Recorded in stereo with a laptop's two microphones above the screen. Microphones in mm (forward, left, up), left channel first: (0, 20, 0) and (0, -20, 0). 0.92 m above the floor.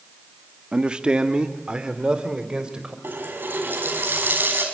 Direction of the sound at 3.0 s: 55° right (ahead or behind).